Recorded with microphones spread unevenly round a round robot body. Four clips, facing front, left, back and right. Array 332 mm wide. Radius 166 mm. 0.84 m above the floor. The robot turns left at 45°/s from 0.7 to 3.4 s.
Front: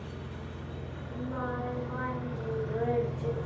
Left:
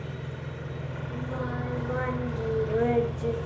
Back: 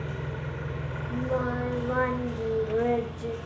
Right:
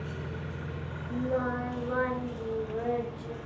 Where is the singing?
145° right, 4.5 m; by 3.4 s 110° left, 4.5 m.